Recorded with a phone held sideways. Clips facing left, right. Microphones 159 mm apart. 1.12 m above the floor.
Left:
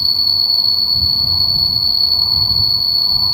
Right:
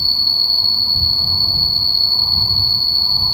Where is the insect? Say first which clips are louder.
Even; 70° right (ahead or behind).